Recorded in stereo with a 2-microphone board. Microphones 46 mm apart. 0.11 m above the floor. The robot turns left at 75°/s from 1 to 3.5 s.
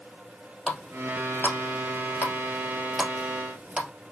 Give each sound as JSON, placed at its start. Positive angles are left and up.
{"t": 0.7, "sound": "a running tap", "side_deg": 20, "distance_m": 1.9}